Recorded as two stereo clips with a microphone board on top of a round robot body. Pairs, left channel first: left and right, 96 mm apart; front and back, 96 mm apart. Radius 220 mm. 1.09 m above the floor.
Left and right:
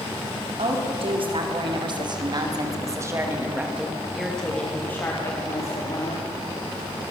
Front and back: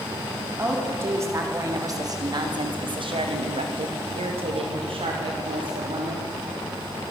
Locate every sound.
0.6 s a woman speaking: 115° right, 4 m; by 6.3 s 140° left, 3.5 m